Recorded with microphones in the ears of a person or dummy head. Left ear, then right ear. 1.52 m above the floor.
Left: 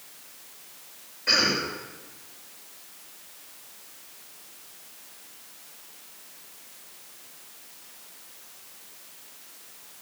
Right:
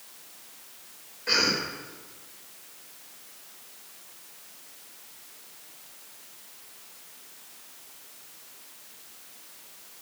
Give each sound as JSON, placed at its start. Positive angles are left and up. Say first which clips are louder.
{"t": 1.3, "sound": "a cough", "louder": "left 2 dB", "side_deg": 5, "distance_m": 6.0}